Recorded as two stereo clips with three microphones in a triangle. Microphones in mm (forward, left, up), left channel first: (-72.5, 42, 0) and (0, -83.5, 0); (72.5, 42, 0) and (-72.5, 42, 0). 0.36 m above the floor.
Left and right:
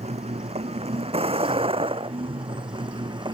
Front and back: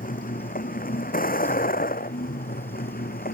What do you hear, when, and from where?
0.0 s a vehicle: 20° right; by 3.3 s 5° right